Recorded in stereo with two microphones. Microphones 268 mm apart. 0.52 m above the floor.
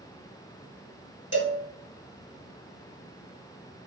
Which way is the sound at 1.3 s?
45° left (ahead or behind).